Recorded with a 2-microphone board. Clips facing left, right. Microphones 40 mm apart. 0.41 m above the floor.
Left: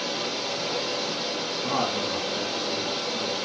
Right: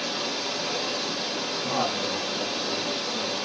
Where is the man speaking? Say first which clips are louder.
Left 1 dB; 15° left (ahead or behind), 4 m.